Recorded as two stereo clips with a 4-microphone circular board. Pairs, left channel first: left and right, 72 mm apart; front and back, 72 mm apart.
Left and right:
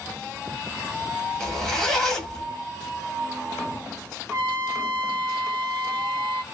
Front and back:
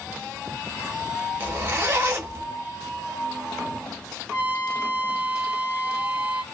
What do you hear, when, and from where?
1.4 s a zipper: 165° left, 1.0 m
4.3 s a trumpet: 125° right, 1.5 m